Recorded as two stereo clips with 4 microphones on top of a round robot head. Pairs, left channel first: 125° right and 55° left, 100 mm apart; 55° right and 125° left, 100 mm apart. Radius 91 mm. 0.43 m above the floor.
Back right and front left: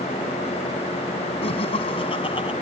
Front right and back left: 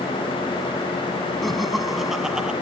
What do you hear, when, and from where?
1.4 s laughter: 145° right; by 2.5 s 155° right